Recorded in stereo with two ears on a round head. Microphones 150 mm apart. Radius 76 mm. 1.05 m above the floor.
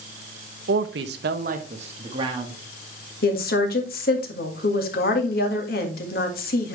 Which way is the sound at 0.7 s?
70° right (ahead or behind).